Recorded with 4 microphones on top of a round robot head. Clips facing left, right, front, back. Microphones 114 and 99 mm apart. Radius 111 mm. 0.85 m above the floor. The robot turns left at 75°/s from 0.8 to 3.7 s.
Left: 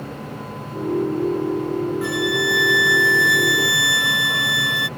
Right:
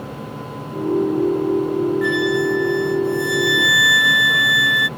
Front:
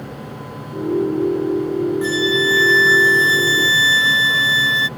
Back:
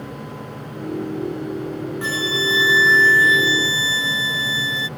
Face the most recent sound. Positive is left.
turn(degrees=30)